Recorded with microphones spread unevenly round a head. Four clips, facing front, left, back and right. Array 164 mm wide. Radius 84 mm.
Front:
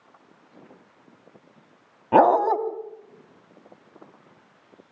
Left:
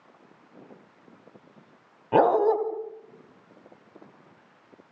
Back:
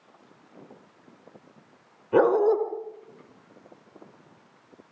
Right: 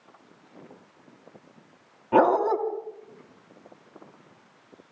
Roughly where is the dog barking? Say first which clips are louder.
Even, front 3 dB; ahead.